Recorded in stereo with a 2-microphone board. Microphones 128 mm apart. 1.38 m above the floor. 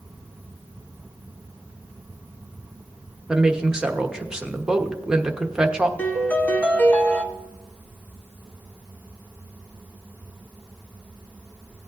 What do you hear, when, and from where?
3.3 s a woman speaking: 5° right (ahead or behind), 1.0 m
6.0 s a piano: 10° left (ahead or behind), 1.1 m